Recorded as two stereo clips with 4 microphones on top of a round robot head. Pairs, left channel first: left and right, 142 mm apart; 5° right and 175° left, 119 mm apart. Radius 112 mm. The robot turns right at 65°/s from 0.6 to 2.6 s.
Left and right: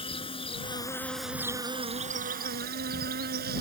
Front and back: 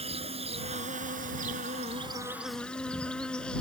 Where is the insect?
140° left; by 3.6 s 90° right.